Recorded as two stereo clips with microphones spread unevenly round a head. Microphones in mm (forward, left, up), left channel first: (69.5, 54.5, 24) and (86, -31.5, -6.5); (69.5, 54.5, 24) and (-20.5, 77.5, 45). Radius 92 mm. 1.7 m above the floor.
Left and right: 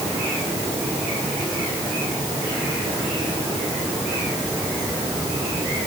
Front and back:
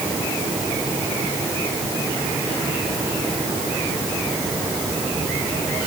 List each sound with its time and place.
Only background noise.